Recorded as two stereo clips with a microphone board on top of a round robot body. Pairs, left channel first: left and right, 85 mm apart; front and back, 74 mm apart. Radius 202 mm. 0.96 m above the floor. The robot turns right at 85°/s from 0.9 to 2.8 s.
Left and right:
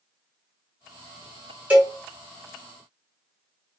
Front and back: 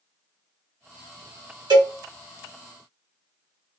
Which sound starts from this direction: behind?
A cowbell, at 1.7 s.